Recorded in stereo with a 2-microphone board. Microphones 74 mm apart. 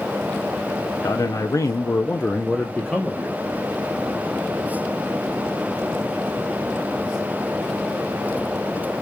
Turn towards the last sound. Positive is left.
turn(degrees=-5)  # may be behind; listen again after turning